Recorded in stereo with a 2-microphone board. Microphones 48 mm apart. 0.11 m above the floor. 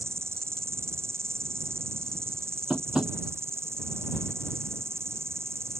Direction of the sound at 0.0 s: 65° right (ahead or behind).